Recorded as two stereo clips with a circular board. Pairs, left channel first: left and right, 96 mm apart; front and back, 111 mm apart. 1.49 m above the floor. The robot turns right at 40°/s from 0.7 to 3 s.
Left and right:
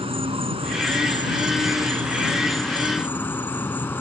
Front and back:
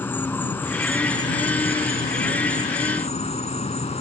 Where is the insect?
70° right; by 4.0 s 20° left.